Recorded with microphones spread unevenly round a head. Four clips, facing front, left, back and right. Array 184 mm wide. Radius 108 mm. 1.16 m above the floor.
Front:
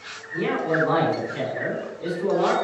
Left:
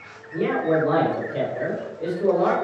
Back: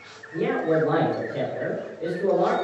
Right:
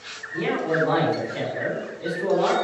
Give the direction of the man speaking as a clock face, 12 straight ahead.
8 o'clock.